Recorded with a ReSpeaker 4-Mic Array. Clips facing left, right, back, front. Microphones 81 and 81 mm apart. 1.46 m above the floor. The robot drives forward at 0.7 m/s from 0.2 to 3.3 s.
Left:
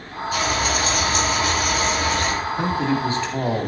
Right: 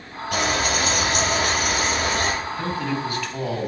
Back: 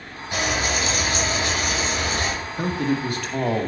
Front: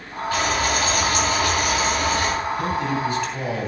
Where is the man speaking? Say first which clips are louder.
Left 4 dB, front 1 dB; 145° left, 2 m; by 3.7 s 150° left, 2.5 m.